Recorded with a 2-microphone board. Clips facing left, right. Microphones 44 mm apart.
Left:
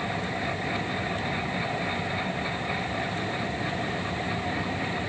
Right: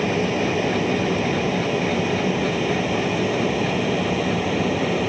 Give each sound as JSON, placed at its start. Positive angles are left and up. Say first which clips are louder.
{"t": 0.0, "sound": "an aircraft", "louder": "right 9 dB", "side_deg": -70}